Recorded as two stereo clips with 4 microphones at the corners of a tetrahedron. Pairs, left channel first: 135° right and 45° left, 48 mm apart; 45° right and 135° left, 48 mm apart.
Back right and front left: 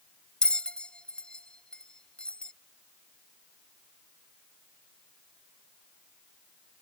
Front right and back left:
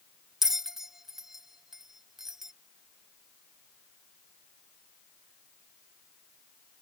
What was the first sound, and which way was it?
A bell, 160° right.